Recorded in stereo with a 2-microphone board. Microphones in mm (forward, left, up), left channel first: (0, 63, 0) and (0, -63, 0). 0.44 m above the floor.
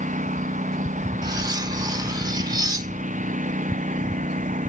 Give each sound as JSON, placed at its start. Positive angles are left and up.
{"t": 0.0, "sound": "a lawn mower", "side_deg": -85}
{"t": 1.2, "sound": "cutlery clinking", "side_deg": -30}